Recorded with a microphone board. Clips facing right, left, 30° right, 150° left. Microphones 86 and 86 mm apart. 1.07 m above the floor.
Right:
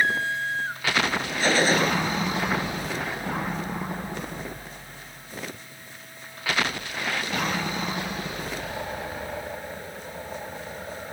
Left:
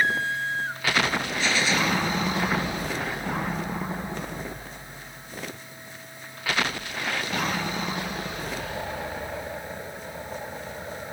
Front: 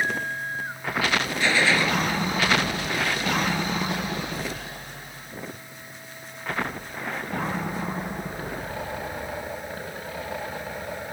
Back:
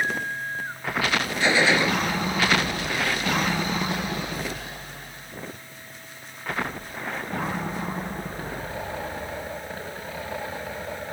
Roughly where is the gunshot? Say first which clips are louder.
Right 5 dB, back 2 dB; behind right.